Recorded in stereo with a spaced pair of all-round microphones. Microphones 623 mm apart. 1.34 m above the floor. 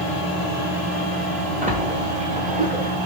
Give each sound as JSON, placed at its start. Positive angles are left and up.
{"t": 1.6, "sound": "a splash", "side_deg": -10, "distance_m": 1.4}